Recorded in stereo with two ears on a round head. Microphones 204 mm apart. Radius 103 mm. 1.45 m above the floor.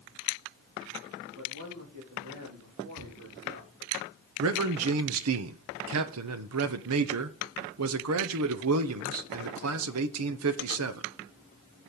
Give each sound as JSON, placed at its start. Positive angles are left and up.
{"t": 1.4, "sound": "a man speaking", "side_deg": -65, "distance_m": 3.0}
{"t": 3.0, "sound": "tearing paper", "side_deg": -50, "distance_m": 4.5}
{"t": 4.4, "sound": "a man speaking", "side_deg": -70, "distance_m": 0.8}